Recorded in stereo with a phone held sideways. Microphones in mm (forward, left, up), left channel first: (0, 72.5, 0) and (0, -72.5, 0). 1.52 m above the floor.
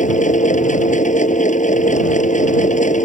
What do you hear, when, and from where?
0.0 s a machine running: 60° left (ahead or behind)